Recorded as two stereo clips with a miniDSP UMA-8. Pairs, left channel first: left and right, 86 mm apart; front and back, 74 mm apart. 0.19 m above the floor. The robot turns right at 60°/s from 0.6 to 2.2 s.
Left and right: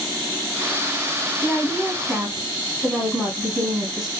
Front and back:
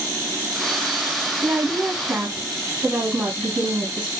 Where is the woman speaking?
140° left, 1.5 m; by 4.1 s 175° right, 1.5 m.